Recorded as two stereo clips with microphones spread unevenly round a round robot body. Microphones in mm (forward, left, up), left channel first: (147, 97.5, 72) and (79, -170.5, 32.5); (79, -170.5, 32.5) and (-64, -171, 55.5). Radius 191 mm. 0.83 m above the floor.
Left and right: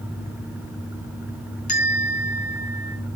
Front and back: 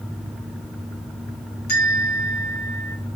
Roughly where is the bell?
Ahead.